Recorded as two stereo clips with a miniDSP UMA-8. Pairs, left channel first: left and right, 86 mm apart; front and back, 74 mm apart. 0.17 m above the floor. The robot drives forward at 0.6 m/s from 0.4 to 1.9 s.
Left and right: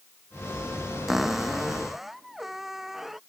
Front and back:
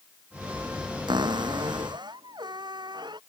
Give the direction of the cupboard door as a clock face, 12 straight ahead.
6 o'clock.